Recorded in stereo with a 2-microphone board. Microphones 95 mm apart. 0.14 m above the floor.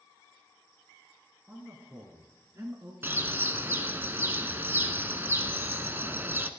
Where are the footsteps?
No footsteps in this recording.